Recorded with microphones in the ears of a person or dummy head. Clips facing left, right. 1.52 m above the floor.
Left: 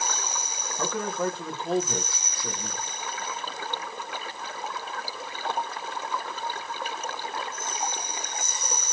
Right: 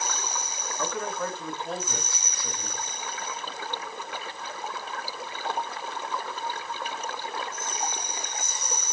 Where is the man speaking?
35° left (ahead or behind), 1.7 m.